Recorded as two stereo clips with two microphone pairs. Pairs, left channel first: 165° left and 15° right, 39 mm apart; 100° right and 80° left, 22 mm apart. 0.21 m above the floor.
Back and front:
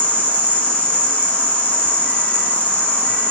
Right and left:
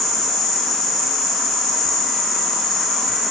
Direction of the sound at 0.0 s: 170° right.